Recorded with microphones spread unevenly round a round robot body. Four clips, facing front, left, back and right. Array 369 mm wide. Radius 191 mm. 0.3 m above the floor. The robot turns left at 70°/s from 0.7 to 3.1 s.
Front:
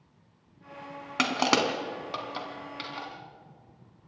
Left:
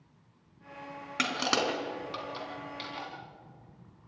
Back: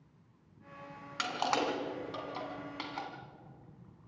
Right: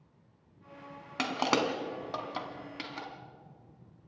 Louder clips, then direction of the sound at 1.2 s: Right 1 dB, front 7 dB; 15° left.